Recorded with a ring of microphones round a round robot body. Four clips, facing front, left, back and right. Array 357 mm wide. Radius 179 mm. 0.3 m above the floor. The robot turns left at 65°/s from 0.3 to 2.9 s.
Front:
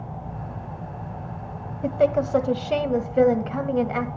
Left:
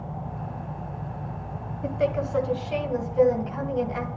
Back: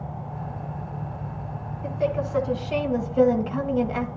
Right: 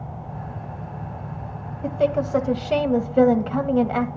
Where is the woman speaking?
Straight ahead, 1.7 m; by 4.1 s 70° right, 1.7 m.